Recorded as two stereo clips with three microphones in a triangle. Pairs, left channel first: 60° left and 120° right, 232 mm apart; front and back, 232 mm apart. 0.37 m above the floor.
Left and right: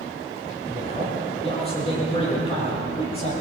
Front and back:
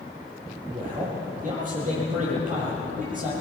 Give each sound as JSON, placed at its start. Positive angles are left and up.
{"t": 0.7, "sound": "a man speaking", "azimuth_deg": 125, "distance_m": 9.5}